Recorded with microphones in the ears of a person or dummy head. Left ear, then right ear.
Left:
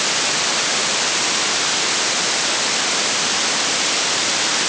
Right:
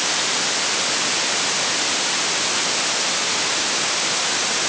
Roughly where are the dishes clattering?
I don't hear dishes clattering.